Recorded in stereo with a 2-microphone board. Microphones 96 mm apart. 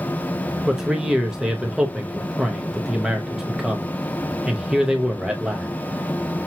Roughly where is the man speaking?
Centre.